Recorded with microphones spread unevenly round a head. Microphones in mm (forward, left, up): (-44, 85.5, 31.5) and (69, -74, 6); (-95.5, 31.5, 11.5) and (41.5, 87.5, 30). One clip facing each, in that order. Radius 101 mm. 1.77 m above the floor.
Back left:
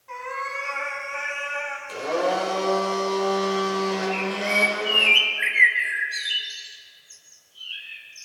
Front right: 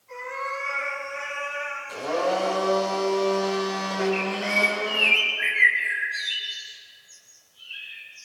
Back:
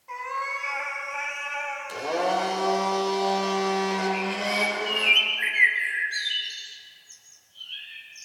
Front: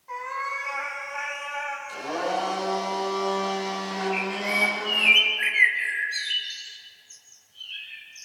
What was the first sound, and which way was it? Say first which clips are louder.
A cat meowing: front right 1 dB, even; 125° left.